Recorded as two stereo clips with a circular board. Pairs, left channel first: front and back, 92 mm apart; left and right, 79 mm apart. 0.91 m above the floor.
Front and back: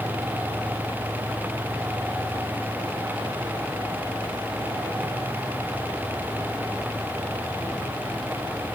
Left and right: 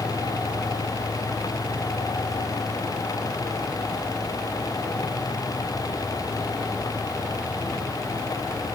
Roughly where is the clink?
I don't hear a clink.